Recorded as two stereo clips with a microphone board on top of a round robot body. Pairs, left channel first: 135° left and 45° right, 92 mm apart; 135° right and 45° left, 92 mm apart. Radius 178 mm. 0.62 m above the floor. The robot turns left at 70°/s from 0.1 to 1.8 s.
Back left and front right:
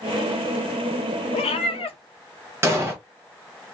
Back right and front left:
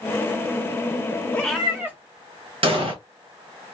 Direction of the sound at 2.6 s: 20° left.